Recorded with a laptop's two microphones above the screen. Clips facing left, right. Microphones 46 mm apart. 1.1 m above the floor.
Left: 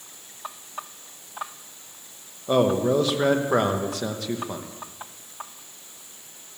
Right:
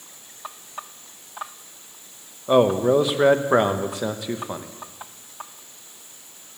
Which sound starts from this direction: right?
A man speaking, at 2.5 s.